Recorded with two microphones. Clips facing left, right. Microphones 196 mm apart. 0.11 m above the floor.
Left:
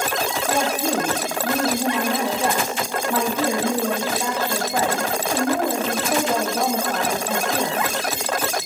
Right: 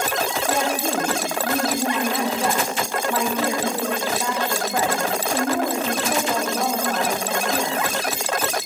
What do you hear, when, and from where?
0.5 s a woman speaking: 5° left (ahead or behind), 4 m